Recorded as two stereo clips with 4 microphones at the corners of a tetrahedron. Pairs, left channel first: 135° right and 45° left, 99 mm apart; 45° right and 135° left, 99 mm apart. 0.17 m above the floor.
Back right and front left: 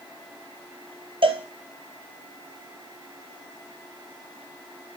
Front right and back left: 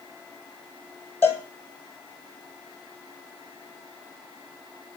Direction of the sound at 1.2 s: 25° left.